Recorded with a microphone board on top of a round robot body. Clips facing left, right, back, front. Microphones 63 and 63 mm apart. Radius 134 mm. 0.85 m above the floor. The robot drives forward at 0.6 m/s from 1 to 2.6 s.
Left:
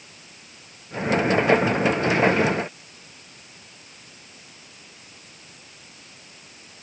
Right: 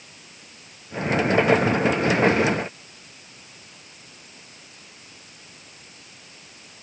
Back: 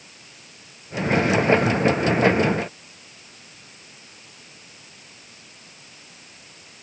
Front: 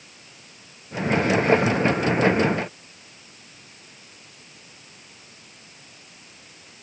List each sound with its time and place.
Only background noise.